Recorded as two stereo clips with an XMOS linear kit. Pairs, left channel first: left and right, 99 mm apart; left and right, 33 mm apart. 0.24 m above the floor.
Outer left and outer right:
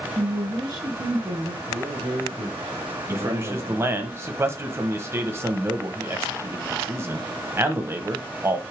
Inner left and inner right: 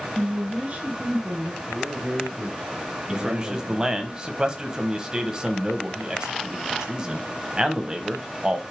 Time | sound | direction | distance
0.1 | a woman speaking | 45° right (ahead or behind) | 2 m
1.7 | a man speaking | 65° right (ahead or behind) | 3 m
3.1 | a man speaking | 25° right (ahead or behind) | 1.1 m